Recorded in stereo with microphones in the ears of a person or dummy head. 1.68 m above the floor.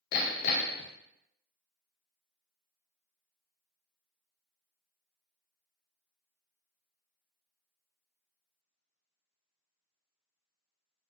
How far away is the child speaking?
I don't hear a child speaking.